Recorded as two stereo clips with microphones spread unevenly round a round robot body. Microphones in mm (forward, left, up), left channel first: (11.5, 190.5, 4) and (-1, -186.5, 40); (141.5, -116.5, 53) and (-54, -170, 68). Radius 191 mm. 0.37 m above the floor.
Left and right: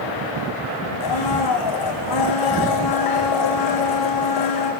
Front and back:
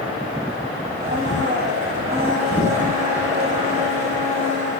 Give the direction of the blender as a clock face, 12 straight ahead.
8 o'clock.